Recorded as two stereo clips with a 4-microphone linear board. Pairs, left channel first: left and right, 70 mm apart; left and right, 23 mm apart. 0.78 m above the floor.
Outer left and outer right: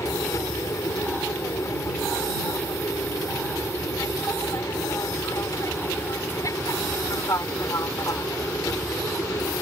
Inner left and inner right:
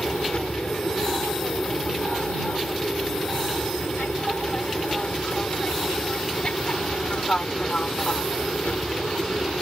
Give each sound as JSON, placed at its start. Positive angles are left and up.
{"t": 0.0, "sound": "an aircraft", "side_deg": 50}